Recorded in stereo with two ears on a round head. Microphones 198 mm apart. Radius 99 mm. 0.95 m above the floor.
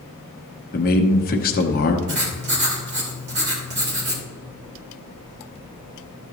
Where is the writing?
50° right (ahead or behind), 2.5 m.